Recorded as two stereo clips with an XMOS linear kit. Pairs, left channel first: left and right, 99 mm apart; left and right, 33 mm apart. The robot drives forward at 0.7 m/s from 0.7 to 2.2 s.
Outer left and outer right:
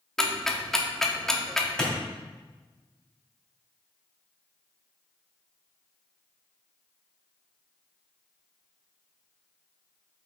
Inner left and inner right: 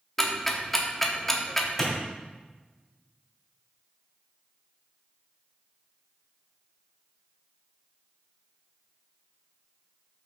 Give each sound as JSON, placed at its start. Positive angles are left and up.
{"t": 0.2, "sound": "ticking", "side_deg": 5, "distance_m": 1.1}
{"t": 1.8, "sound": "a clap", "side_deg": 5, "distance_m": 2.5}